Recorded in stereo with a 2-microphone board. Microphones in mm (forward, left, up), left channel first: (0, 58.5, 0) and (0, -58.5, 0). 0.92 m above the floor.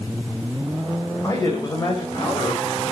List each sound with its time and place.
1.2 s a man speaking: 30° left (ahead or behind), 3.5 m